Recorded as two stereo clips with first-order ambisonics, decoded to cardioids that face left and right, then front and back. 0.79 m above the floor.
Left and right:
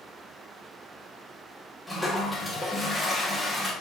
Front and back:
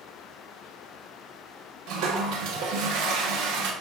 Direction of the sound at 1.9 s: Straight behind.